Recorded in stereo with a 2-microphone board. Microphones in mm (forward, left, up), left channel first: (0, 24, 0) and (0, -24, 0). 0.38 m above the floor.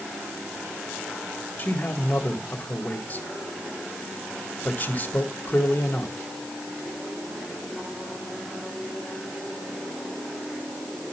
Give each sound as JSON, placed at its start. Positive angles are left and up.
{"t": 1.6, "sound": "a man speaking", "side_deg": 35, "distance_m": 1.8}